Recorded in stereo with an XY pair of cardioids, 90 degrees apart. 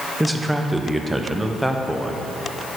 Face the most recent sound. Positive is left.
turn(degrees=0)